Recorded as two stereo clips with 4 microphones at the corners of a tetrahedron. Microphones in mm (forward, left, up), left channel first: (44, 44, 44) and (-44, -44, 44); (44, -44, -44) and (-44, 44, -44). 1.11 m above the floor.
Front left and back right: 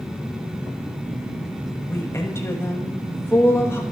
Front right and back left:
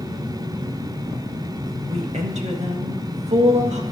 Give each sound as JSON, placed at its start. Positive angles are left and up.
{"t": 1.9, "sound": "a woman speaking", "azimuth_deg": 115, "distance_m": 1.6}